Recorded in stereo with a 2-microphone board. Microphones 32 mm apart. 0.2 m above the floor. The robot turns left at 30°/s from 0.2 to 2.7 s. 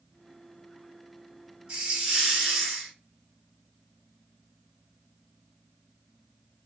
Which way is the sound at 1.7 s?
150° right.